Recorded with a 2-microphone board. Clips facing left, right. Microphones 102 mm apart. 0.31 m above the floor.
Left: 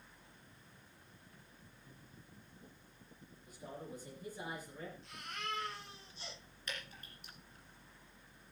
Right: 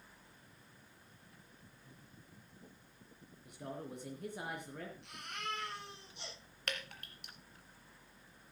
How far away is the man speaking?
About 4 m.